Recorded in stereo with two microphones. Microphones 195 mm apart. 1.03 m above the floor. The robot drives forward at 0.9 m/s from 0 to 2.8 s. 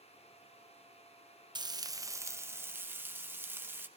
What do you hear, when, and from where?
1.6 s frying: 20° right (ahead or behind), 0.8 m; by 3.9 s 10° right (ahead or behind), 1.6 m